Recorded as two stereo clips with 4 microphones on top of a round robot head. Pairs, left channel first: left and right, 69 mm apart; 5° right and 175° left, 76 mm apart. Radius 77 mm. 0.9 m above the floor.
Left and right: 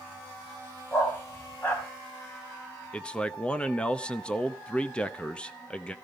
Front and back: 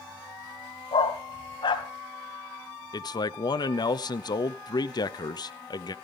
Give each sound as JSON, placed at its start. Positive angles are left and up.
{"t": 0.9, "sound": "a dog barking", "azimuth_deg": 20, "distance_m": 2.5}
{"t": 2.9, "sound": "a man speaking", "azimuth_deg": 15, "distance_m": 1.0}